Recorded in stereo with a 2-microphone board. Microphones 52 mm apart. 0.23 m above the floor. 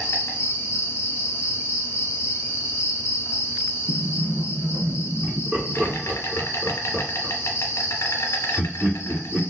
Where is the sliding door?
65° right (ahead or behind), 1.6 m.